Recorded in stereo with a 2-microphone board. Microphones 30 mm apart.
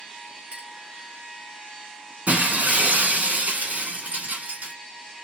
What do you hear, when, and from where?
0.5 s a clink: 50° right (ahead or behind), 2 m
2.3 s breaking glass: 55° right (ahead or behind), 1.8 m